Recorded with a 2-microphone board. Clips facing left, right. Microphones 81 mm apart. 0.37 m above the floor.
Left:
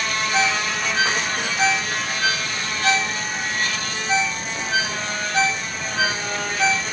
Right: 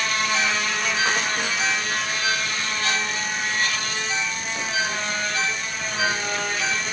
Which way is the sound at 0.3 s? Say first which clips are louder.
Left 2 dB; 65° left (ahead or behind).